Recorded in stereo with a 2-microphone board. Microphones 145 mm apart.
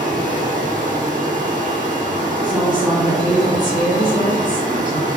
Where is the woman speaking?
30° right (ahead or behind), 2.5 m.